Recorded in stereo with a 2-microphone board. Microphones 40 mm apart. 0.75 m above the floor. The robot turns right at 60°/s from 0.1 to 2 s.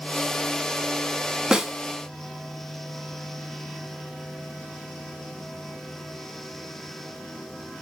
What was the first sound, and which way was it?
A snare drum, 20° right (ahead or behind).